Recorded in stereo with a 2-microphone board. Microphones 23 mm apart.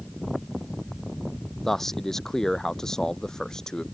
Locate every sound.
1.6 s a man speaking: 15° left (ahead or behind); by 3.8 s 25° left (ahead or behind)